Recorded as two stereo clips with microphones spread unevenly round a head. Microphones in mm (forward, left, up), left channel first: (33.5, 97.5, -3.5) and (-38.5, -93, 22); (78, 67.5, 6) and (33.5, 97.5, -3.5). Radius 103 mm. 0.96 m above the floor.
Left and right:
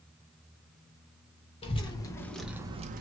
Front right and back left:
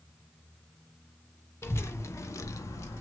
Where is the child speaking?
10° left, 0.9 m; by 3.0 s 70° right, 0.5 m.